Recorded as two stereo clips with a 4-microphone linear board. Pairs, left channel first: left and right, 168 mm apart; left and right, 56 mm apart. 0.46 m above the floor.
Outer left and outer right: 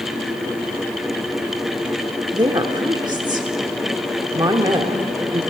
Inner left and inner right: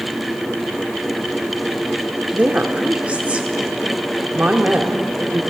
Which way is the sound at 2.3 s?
25° right (ahead or behind).